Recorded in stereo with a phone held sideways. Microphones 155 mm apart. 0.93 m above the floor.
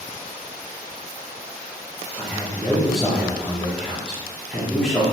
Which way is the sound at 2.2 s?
Centre (ahead or behind).